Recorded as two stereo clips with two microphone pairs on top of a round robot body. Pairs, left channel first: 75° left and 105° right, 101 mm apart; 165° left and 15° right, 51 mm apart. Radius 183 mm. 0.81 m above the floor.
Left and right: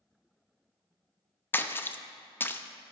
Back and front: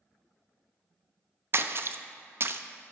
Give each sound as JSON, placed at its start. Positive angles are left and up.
{"t": 1.5, "sound": "a splash", "azimuth_deg": 15, "distance_m": 0.6}